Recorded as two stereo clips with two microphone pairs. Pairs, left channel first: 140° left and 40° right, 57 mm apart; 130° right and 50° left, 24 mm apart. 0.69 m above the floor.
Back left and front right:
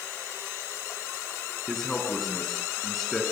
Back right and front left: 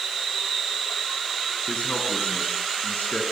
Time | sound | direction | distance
1.7 | a man speaking | 135° right | 7 m